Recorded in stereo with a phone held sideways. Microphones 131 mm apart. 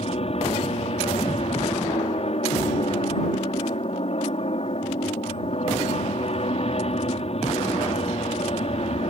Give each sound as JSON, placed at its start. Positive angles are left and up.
{"t": 0.0, "sound": "an aircraft", "side_deg": 50}